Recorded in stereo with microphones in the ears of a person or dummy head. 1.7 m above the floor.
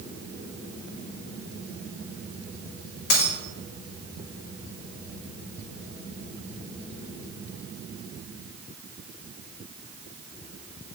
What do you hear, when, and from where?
3.1 s a dropped coin: 55° left (ahead or behind), 1.9 m